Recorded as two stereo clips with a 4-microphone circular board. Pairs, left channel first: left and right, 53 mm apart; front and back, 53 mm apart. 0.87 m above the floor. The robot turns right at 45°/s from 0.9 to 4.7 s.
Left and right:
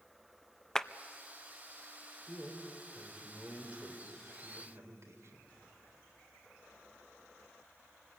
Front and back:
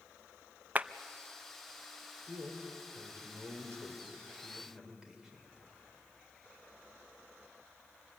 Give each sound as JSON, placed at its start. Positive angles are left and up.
{"t": 0.8, "sound": "a clap", "azimuth_deg": 160, "distance_m": 0.5}
{"t": 2.3, "sound": "a man speaking", "azimuth_deg": 145, "distance_m": 3.5}